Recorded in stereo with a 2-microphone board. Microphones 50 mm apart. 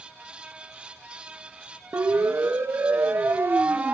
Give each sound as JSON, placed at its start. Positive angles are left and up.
{"t": 1.9, "sound": "a siren", "side_deg": -60, "distance_m": 2.5}